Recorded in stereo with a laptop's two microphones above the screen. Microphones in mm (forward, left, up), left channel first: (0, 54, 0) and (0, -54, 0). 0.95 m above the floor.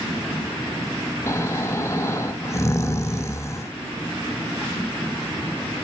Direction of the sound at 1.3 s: 25° left (ahead or behind).